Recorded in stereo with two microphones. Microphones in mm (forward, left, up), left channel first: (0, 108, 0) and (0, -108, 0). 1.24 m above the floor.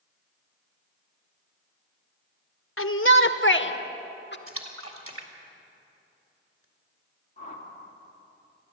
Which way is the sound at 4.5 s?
85° right.